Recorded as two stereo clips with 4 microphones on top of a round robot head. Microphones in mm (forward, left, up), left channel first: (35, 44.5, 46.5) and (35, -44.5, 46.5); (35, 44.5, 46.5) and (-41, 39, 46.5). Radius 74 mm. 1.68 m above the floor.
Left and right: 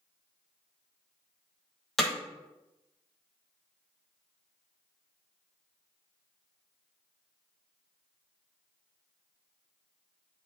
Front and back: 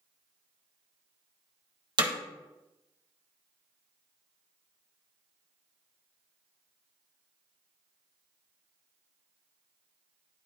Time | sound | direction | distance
2.0 | hammering | straight behind | 1.1 m